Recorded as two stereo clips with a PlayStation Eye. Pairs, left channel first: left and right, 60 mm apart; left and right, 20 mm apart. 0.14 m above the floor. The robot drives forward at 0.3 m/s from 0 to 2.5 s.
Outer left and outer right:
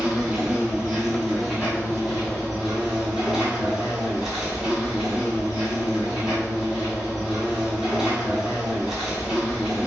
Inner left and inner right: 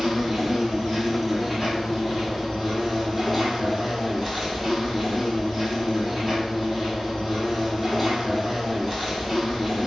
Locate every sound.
0.0 s an insect: 20° right (ahead or behind), 0.9 m; by 9.9 s 10° right (ahead or behind), 1.6 m